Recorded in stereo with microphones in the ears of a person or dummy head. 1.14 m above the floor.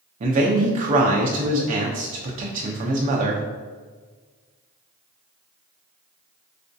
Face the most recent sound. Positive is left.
turn(degrees=-40)  # may be behind; listen again after turning